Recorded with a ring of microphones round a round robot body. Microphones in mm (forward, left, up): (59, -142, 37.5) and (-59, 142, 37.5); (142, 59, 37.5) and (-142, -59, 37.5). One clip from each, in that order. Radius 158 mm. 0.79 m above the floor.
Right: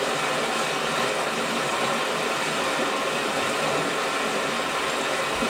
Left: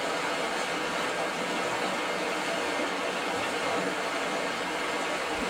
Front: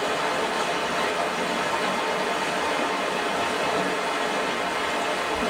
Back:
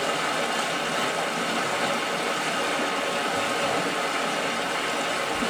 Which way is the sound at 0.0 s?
125° right.